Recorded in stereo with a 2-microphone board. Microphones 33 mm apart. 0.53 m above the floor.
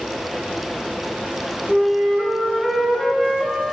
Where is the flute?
Centre (ahead or behind), 0.7 m.